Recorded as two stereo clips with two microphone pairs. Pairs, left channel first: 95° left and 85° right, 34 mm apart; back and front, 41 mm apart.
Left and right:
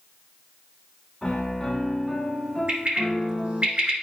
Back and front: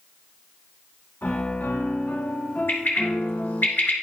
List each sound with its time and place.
1.2 s a piano: 165° left, 1.2 m
2.7 s a bird: 135° right, 2.5 m